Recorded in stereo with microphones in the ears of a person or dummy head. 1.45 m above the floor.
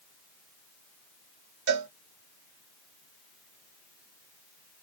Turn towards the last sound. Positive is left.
turn(degrees=-60)  # may be behind; listen again after turning